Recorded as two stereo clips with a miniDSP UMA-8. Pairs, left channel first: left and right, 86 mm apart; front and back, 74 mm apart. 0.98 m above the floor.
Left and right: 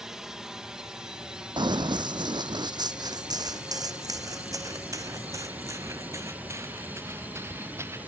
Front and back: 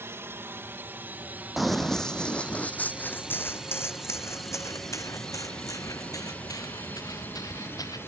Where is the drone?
170° right; by 8.1 s 35° right.